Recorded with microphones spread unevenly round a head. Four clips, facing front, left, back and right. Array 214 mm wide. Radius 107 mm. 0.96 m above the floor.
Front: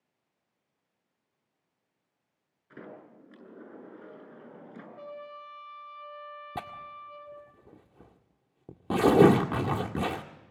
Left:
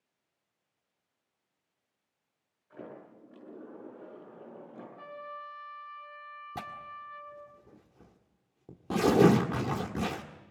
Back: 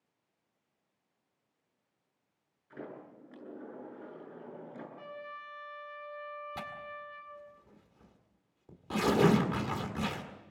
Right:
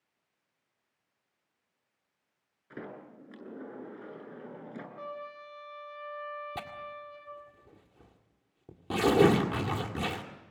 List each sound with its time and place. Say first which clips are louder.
2.7 s a sliding door: right 2 dB, back 1 dB; 75° right, 8.5 m
5.0 s a trumpet: even, front 2 dB; 30° right, 5.5 m
6.5 s tearing paper: right 1 dB, front 3 dB; 5° left, 1.9 m